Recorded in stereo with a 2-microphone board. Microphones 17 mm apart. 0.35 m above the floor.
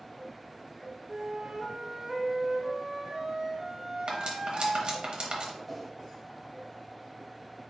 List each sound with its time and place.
1.1 s a flute: 25° right (ahead or behind), 0.6 m
4.1 s cutlery clinking: 60° right (ahead or behind), 0.9 m
5.7 s a whoosh: 5° left (ahead or behind), 0.6 m